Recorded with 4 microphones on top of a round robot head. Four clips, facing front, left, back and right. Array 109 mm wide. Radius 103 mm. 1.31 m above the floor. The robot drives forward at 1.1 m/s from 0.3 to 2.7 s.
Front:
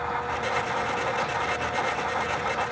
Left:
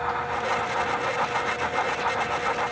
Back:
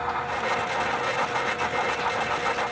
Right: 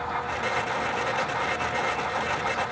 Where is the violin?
I don't hear a violin.